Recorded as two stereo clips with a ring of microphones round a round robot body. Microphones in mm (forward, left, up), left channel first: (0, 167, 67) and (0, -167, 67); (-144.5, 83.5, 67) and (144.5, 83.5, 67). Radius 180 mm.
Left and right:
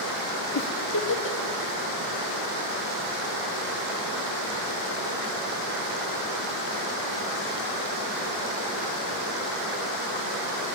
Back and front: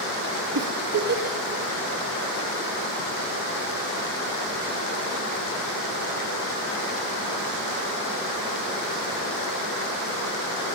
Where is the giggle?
35° left, 2.5 m.